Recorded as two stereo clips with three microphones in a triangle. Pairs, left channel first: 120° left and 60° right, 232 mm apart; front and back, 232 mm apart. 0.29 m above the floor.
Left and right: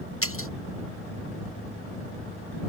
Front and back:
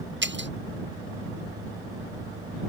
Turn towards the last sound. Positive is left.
turn(degrees=140)